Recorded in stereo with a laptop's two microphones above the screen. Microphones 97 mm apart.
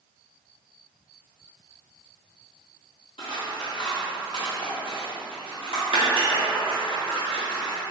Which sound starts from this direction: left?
Scissors, at 3.2 s.